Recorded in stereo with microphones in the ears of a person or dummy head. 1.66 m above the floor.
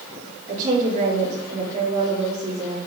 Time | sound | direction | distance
0.5 | a woman speaking | 45° right (ahead or behind) | 4 m